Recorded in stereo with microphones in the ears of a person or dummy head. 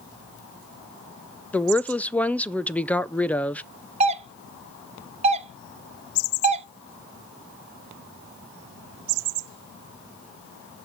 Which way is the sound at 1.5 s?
10° left (ahead or behind).